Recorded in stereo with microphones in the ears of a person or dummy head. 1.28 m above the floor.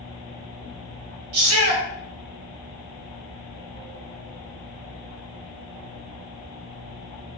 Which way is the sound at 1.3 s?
75° right (ahead or behind).